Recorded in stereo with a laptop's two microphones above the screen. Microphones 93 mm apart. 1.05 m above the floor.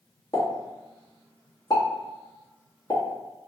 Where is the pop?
45° left (ahead or behind), 1.2 m.